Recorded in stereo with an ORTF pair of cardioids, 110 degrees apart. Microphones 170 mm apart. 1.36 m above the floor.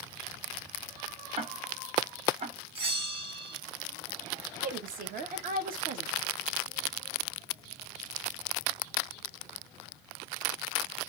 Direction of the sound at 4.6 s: 55° right.